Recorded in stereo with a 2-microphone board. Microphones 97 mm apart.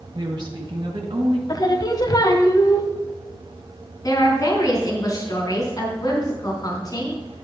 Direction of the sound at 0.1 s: 50° right (ahead or behind).